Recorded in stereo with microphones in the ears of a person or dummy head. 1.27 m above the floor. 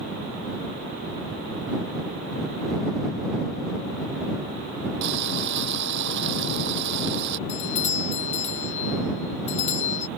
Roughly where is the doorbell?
Left.